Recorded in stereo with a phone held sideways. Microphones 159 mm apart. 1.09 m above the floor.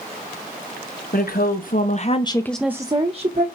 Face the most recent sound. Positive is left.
turn(degrees=-50)  # may be behind; listen again after turning